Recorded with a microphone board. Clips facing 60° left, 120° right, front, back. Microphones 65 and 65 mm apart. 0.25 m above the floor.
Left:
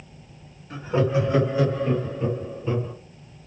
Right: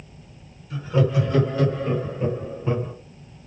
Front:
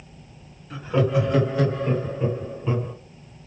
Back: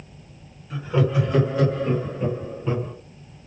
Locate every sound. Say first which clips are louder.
0.7 s laughter: even, front 1 dB; 85° left, 1.8 m; by 2.9 s 100° right, 1.8 m